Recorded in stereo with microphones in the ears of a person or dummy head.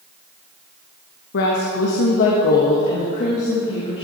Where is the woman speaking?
65° left (ahead or behind), 1.4 m; by 4.0 s 30° left (ahead or behind), 2 m.